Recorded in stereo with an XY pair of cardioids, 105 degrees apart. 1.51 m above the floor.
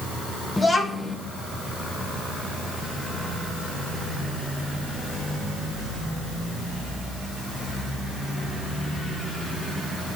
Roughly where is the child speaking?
Ahead left.